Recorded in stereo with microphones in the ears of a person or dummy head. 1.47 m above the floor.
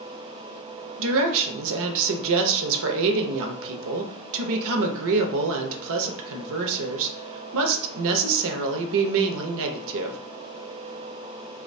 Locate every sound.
1.0 s a woman speaking: 70° right (ahead or behind), 0.6 m